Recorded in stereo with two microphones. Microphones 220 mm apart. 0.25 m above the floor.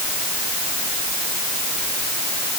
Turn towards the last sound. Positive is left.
No sound to turn to.